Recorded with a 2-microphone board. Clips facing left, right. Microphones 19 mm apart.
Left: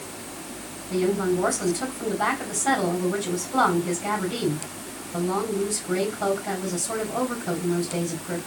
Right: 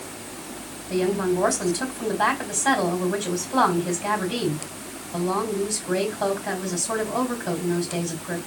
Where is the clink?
No clink in this recording.